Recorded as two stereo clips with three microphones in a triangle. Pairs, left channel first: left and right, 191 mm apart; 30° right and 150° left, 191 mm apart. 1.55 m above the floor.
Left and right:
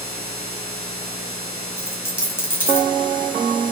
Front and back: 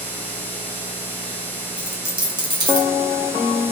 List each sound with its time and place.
1.8 s a dropped coin: 150° left, 1.5 m